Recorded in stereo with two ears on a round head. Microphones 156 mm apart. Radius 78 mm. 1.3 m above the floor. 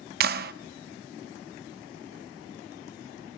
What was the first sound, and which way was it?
A clap, 60° right (ahead or behind).